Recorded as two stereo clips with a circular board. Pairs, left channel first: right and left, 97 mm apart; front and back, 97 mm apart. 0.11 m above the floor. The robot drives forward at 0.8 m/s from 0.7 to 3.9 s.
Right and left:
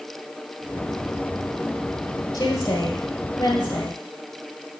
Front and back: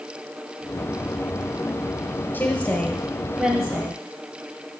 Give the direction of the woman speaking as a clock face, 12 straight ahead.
2 o'clock.